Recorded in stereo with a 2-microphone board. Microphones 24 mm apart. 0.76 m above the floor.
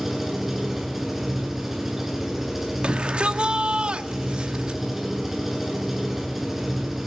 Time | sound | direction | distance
0.0 | an engine running | 10° right (ahead or behind) | 9 m
2.8 | a shout | 50° right (ahead or behind) | 1.6 m